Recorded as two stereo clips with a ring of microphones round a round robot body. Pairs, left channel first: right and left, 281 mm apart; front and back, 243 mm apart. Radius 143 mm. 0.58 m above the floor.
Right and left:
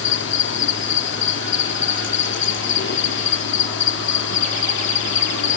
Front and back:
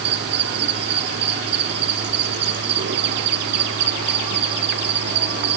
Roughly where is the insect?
Behind right.